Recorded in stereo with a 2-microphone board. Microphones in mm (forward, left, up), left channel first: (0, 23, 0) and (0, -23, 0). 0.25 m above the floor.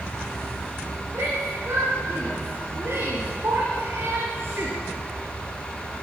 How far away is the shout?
About 6.5 m.